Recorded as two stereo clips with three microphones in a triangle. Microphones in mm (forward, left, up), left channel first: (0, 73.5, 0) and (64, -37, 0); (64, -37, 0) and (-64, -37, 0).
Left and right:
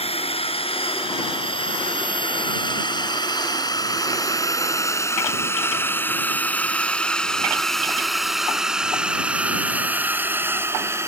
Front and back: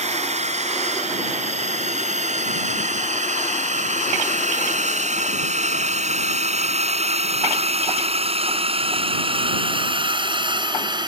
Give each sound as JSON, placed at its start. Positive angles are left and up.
{"t": 0.0, "sound": "a drone", "azimuth_deg": 155}